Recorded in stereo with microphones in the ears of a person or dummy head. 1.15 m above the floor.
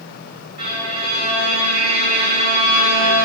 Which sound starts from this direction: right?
A violin, at 0.6 s.